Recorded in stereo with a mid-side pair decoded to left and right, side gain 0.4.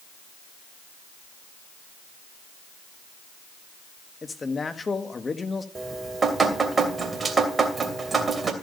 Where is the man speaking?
35° left, 1.5 m.